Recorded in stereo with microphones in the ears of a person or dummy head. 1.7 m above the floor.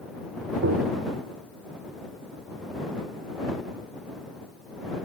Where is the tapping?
70° right (ahead or behind).